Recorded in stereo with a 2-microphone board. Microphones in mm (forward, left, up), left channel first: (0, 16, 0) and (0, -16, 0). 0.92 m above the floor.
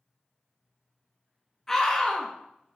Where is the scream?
15° left (ahead or behind), 1.2 m.